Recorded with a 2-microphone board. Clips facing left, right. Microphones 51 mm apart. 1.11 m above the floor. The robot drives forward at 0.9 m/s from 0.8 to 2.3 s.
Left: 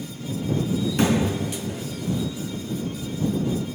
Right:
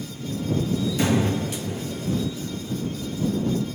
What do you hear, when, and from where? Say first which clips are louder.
1.0 s a thud: left 2 dB; 55° left (ahead or behind), 3.5 m